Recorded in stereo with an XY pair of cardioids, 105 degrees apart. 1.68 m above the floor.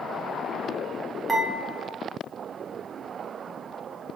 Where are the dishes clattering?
20° right, 2 m.